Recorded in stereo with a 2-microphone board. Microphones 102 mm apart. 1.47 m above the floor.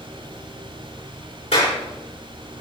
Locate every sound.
1.5 s a clap: 85° left, 5 m